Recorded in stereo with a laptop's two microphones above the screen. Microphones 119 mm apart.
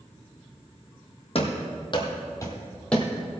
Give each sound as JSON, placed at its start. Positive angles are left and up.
{"t": 1.4, "sound": "running footsteps", "side_deg": 55, "distance_m": 1.8}